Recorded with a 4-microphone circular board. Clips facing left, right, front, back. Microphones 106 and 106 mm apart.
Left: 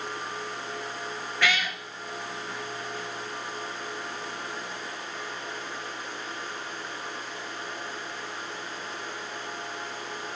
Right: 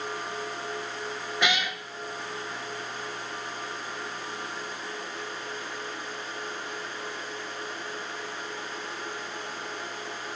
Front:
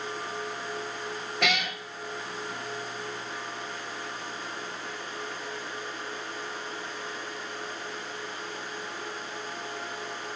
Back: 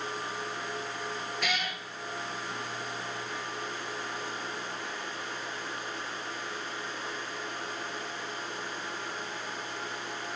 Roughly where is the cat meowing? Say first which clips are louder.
Even, front 6 dB; ahead.